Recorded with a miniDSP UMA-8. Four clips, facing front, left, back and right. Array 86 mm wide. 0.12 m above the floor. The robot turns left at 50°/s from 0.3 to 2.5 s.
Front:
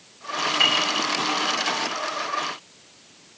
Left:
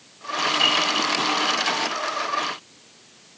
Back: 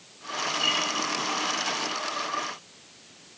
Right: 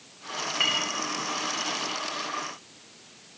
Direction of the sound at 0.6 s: 5° right.